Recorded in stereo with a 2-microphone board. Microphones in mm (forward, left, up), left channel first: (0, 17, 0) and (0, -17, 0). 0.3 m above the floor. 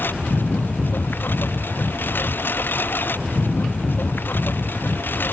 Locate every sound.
0.0 s a lawn mower: 90° left